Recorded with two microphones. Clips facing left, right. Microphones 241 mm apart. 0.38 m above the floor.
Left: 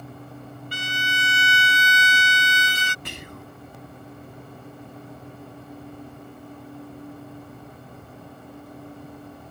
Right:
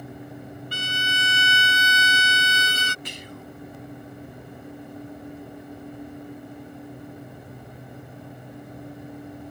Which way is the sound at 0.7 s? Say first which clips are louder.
Left 2 dB; 45° right (ahead or behind).